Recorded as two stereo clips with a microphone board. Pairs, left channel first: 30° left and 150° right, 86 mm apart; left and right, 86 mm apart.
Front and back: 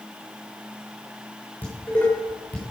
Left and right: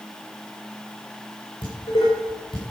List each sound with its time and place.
1.6 s dishes clattering: 105° left, 6.5 m